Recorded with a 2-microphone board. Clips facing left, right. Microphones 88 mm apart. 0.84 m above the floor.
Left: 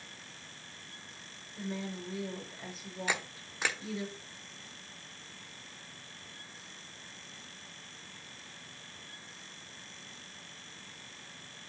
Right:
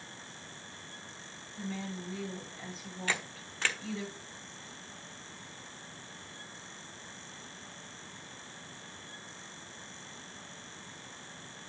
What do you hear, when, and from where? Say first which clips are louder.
1.6 s a woman speaking: left 1 dB; 15° left (ahead or behind), 4 m
3.1 s a camera shutter: even; 15° left (ahead or behind), 0.9 m